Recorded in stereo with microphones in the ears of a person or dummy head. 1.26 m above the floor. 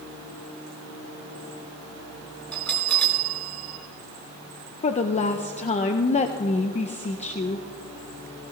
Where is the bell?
5° left (ahead or behind), 2 m.